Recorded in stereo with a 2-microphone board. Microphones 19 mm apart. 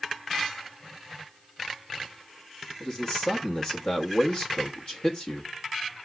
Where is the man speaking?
50° left (ahead or behind), 1.0 m.